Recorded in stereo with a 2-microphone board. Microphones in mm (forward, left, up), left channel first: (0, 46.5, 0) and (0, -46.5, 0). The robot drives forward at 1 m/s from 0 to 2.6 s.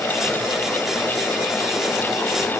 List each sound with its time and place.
Only background noise.